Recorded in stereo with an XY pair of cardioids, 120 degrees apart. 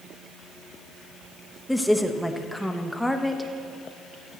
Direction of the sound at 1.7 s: 5° left.